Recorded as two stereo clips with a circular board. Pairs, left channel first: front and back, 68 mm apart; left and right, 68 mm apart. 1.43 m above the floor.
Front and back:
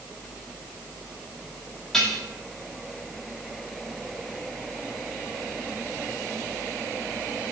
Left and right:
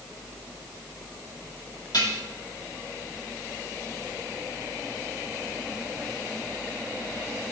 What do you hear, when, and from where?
1.9 s dishes clattering: 80° left, 2 m